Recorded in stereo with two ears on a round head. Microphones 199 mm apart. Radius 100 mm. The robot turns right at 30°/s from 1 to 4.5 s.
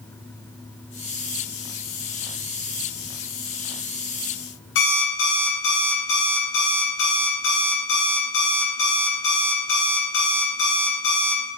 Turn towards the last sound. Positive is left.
turn(degrees=55)  # may be behind; listen again after turning